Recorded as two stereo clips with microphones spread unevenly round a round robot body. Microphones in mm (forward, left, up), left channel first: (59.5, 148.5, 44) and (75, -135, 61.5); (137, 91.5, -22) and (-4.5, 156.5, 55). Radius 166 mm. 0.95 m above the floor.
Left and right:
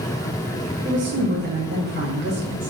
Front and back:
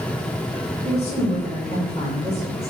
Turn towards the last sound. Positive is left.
turn(degrees=-140)